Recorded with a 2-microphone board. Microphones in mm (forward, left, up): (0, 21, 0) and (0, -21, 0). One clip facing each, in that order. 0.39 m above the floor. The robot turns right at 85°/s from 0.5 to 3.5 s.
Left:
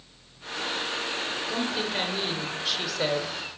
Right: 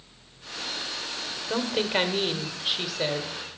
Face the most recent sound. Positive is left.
turn(degrees=35)